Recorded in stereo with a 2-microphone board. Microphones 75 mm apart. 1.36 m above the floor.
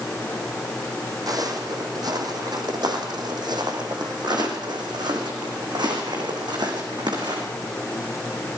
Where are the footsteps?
55° right (ahead or behind), 4 m; by 7.4 s 75° right (ahead or behind), 6 m.